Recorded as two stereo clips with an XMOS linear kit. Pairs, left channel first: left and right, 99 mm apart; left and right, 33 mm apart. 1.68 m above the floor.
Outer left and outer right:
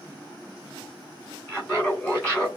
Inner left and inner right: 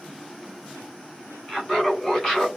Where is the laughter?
10° left (ahead or behind), 3 m.